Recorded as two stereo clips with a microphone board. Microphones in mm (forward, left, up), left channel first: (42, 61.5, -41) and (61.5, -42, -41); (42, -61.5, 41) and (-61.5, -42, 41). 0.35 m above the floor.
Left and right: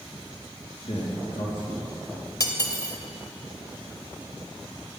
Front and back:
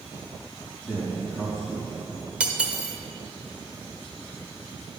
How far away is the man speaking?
About 3 m.